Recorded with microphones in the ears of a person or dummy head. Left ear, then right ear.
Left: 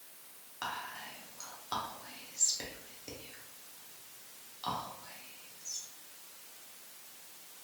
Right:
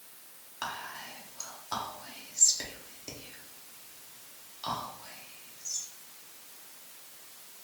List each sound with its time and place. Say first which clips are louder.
0.6 s whispering: right 2 dB; centre (ahead or behind), 0.7 m